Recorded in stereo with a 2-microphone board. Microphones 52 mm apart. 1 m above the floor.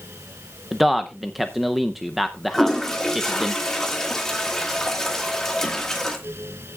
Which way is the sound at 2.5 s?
10° left (ahead or behind).